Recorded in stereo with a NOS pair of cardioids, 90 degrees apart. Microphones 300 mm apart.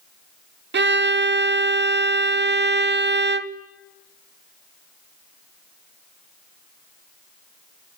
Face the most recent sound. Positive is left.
turn(degrees=-35)